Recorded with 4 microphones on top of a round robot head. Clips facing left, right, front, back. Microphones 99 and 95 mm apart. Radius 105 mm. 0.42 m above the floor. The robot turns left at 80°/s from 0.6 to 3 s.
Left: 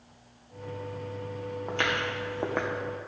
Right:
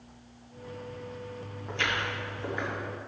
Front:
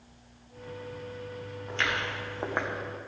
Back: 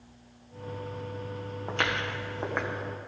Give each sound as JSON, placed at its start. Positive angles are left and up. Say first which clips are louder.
{"t": 1.7, "sound": "footsteps", "louder": "left 1 dB, back 1 dB", "azimuth_deg": 150, "distance_m": 2.5}